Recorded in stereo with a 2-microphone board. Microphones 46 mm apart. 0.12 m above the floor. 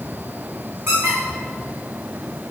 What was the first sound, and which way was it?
A squeak, 75° right (ahead or behind).